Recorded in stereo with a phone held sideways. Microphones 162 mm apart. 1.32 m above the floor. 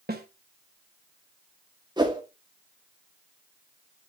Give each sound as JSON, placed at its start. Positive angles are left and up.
{"t": 0.1, "sound": "a snare drum", "side_deg": -75, "distance_m": 1.1}
{"t": 2.0, "sound": "a whoosh", "side_deg": -25, "distance_m": 1.2}